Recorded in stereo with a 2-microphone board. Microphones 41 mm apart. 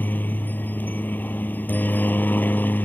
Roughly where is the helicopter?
Left.